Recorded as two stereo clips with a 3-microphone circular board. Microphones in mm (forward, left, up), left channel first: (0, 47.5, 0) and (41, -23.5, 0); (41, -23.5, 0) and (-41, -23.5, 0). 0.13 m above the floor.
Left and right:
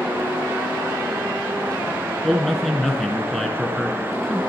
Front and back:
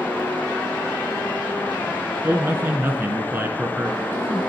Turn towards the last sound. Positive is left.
turn(degrees=-160)